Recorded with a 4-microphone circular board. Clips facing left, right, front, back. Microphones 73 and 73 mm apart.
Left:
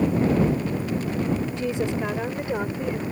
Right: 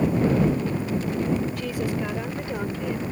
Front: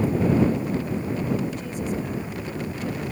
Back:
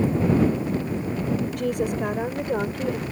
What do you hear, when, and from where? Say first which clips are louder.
1.6 s a woman speaking: left 2 dB, back 4 dB; 155° left; by 3.0 s 160° left